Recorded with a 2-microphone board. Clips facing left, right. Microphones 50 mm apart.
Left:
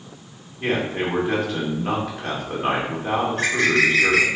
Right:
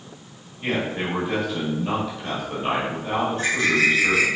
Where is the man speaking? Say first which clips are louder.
Left 2 dB; 50° left (ahead or behind), 3 m.